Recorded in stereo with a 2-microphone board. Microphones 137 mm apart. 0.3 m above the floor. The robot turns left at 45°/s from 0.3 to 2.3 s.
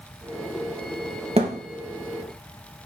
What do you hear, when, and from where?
1.4 s a thud: 45° right (ahead or behind), 3 m; by 1.6 s 55° right (ahead or behind), 3 m